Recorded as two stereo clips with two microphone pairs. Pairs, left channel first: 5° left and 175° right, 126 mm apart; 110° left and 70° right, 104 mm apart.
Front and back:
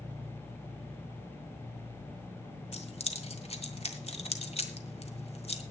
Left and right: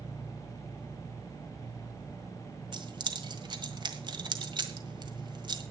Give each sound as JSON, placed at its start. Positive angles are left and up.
{"t": 2.7, "sound": "keys jangling", "azimuth_deg": -30, "distance_m": 1.7}